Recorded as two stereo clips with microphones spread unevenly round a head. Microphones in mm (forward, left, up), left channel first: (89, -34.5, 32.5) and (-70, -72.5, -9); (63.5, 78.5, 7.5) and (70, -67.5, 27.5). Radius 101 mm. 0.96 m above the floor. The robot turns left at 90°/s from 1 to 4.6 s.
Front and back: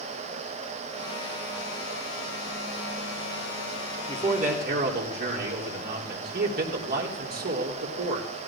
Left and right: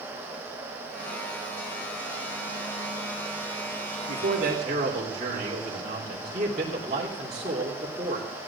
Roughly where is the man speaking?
Right.